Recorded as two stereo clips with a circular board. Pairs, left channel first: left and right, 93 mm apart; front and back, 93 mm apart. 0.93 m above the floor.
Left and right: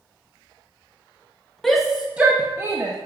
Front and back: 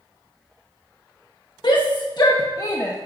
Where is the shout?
5° left, 1.2 m; by 3.0 s 50° right, 1.2 m.